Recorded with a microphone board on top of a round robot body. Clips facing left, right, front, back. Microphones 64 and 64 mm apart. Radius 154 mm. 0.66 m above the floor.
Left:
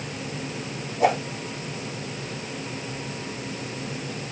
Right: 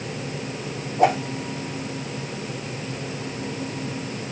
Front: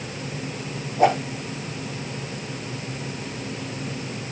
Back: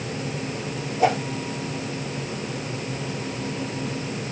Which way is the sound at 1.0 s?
50° right.